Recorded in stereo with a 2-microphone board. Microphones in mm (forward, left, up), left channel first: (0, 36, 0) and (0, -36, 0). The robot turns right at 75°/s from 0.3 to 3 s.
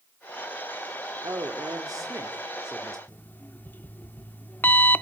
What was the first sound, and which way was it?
A man speaking, 120° right.